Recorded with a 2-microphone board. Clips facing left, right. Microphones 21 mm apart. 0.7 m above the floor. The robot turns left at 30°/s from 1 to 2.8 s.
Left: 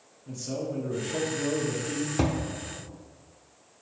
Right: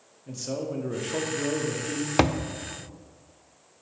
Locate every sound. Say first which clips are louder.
0.3 s a man speaking: right 1 dB; 145° right, 1.0 m; by 2.1 s 175° right, 1.0 m
2.2 s a thud: right 6 dB; 70° right (ahead or behind), 0.6 m; by 2.4 s 65° right (ahead or behind), 0.6 m